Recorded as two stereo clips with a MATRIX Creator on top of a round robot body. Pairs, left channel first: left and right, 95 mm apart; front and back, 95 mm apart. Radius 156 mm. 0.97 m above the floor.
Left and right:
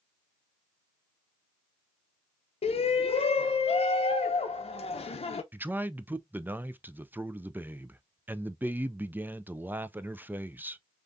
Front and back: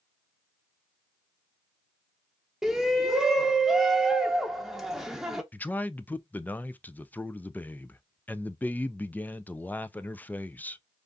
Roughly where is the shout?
Left.